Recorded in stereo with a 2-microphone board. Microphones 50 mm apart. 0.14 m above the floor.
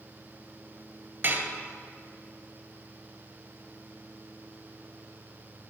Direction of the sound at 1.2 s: 45° right (ahead or behind).